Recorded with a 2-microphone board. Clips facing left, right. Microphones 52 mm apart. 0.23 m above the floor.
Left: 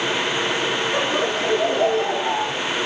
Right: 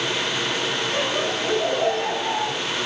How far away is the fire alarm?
No fire alarm in this recording.